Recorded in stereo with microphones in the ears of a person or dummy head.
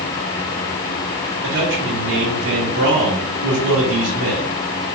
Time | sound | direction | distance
1.4 | a man speaking | 65° right (ahead or behind) | 2 m